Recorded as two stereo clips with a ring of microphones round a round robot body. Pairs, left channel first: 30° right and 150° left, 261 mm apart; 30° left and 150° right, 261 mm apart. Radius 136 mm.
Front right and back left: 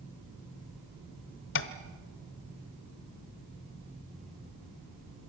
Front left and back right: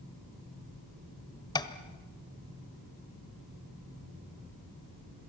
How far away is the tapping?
About 1.1 m.